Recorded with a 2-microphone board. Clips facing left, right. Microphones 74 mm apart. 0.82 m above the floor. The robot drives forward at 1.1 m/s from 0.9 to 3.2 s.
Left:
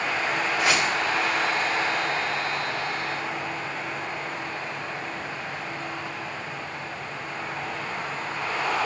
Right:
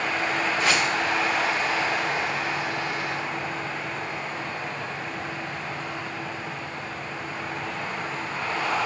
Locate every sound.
0.6 s a whoosh: 15° left (ahead or behind), 1.6 m